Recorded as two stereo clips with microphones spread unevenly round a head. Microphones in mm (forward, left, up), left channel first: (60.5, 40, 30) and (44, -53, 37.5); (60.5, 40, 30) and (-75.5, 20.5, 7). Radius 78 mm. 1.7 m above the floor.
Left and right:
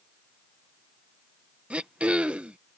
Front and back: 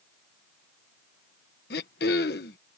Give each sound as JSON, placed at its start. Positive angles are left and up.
{"t": 1.7, "sound": "throat clearing", "azimuth_deg": -25}